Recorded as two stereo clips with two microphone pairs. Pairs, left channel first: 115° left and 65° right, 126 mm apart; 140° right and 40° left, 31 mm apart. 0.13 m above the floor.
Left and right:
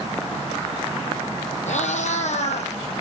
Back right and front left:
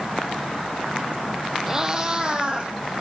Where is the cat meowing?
110° left, 1.4 m; by 2.7 s 95° left, 1.9 m.